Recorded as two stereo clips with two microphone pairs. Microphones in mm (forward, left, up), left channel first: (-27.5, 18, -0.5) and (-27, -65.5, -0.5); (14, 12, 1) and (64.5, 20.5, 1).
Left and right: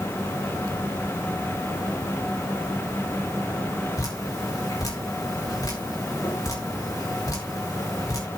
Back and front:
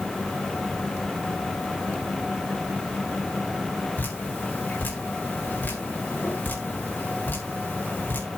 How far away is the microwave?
I don't hear a microwave.